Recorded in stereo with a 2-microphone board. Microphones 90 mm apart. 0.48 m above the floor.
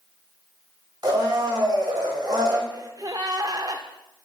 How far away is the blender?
About 2.5 m.